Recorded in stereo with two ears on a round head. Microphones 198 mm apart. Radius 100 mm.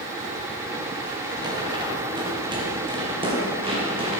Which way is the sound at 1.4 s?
20° right (ahead or behind).